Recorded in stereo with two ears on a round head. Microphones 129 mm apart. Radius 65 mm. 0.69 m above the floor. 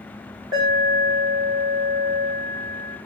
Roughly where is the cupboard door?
No cupboard door in this recording.